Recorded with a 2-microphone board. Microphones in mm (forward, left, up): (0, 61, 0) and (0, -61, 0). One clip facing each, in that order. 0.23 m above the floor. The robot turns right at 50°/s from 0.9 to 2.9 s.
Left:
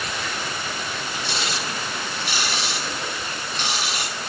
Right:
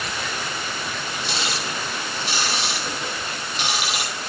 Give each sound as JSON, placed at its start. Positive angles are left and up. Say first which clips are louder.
{"t": 1.3, "sound": "ticking", "louder": "right 1 dB", "side_deg": -85, "distance_m": 3.0}